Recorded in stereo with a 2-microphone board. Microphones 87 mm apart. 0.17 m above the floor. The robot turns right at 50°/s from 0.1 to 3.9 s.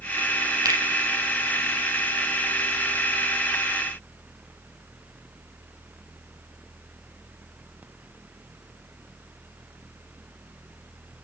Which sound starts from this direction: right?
A finger snap, at 0.7 s.